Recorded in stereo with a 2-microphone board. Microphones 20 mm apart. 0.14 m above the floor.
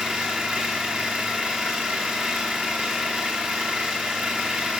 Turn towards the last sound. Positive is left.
turn(degrees=-75)  # may be behind; listen again after turning